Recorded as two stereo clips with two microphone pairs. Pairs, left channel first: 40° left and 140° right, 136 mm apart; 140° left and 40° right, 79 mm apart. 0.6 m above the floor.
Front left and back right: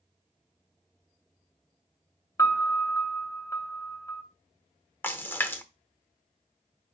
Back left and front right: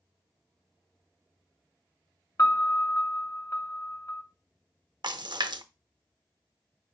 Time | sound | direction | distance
2.4 | a piano | 100° left | 0.7 m
5.0 | a splash | 30° right | 0.5 m